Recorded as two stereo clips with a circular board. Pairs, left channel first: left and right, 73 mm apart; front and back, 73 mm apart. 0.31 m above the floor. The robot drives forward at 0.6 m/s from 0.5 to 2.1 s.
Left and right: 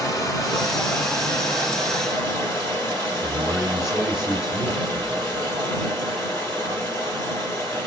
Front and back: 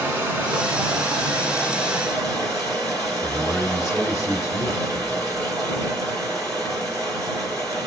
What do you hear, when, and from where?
0.0 s running water: 125° left, 1.3 m; by 7.9 s 150° left, 1.9 m
3.2 s a man speaking: 175° right, 2 m